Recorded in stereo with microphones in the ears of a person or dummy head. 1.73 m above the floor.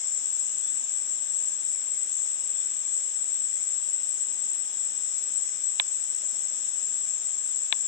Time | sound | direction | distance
0.0 | an insect | 45° left (ahead or behind) | 0.9 m